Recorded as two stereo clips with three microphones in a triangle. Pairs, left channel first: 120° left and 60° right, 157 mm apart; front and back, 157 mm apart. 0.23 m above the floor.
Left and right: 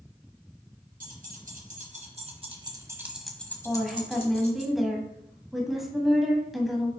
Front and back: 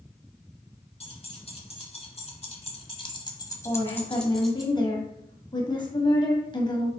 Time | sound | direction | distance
1.0 | keys jangling | 45° right | 2.5 m
3.6 | a woman speaking | 30° left | 1.6 m